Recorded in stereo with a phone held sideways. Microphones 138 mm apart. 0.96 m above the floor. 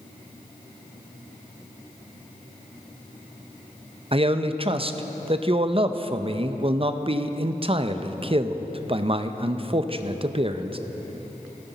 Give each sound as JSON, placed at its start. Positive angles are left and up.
{"t": 4.1, "sound": "a man speaking", "side_deg": -40, "distance_m": 0.5}